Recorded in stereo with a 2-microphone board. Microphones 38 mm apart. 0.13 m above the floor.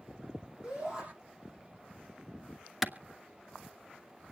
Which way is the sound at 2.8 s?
5° right (ahead or behind).